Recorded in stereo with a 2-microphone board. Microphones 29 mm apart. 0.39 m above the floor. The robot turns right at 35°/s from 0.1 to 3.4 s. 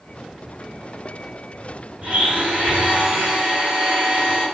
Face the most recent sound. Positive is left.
turn(degrees=-35)